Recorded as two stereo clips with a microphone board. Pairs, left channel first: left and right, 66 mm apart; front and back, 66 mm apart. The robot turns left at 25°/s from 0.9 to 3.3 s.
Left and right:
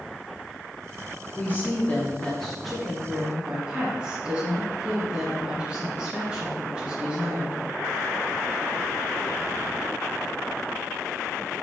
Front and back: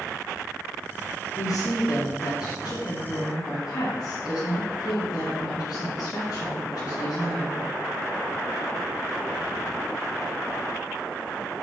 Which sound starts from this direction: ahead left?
A woman speaking, at 1.4 s.